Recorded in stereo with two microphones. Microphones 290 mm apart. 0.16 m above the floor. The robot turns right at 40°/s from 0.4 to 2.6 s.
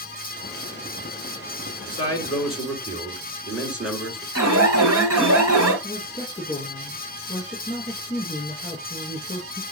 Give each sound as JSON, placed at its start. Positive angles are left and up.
{"t": 1.9, "sound": "a man speaking", "side_deg": 20, "distance_m": 2.5}
{"t": 4.3, "sound": "an alarm", "side_deg": -55, "distance_m": 4.0}
{"t": 5.8, "sound": "a woman speaking", "side_deg": 15, "distance_m": 5.5}